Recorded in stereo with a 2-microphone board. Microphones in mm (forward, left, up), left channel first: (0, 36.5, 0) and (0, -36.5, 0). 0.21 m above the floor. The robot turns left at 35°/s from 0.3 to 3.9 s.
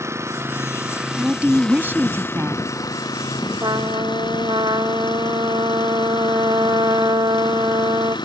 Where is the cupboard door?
I don't hear a cupboard door.